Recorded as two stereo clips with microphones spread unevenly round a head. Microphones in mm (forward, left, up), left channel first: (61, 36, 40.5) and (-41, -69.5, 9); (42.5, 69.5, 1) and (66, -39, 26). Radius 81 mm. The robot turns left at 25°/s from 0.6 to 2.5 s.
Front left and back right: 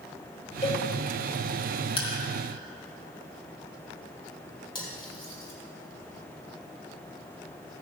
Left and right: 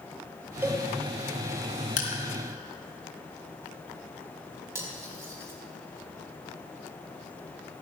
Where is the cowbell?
5° right, 4.5 m; by 0.8 s 10° right, 4.5 m.